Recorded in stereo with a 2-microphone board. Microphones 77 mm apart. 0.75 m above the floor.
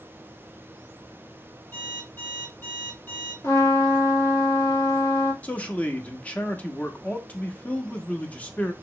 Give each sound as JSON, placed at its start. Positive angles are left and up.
{"t": 1.7, "sound": "an alarm clock", "side_deg": 25, "distance_m": 3.5}
{"t": 3.4, "sound": "a trumpet", "side_deg": 40, "distance_m": 1.5}
{"t": 5.4, "sound": "a man speaking", "side_deg": 20, "distance_m": 0.8}